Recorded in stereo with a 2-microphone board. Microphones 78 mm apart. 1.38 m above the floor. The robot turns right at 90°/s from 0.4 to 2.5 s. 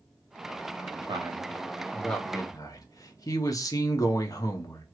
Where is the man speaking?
80° right, 0.8 m; by 4.8 s 50° left, 0.8 m.